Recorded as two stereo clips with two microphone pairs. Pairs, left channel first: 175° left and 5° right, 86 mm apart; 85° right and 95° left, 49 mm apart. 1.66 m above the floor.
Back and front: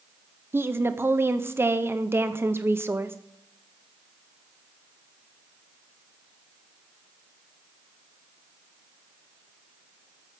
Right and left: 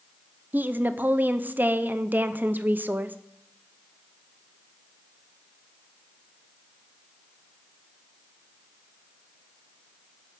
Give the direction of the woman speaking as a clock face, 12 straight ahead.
10 o'clock.